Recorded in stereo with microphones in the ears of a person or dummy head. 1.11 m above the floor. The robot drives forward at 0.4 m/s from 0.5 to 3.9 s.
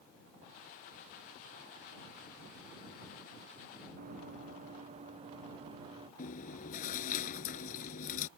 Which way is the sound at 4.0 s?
45° right (ahead or behind).